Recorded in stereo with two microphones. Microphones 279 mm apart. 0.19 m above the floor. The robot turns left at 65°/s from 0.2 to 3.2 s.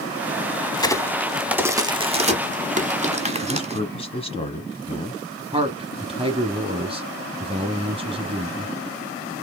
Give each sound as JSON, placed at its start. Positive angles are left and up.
{"t": 0.7, "sound": "a crack", "side_deg": 15, "distance_m": 0.9}
{"t": 3.4, "sound": "a man speaking", "side_deg": 20, "distance_m": 1.0}
{"t": 5.5, "sound": "a man speaking", "side_deg": -20, "distance_m": 1.2}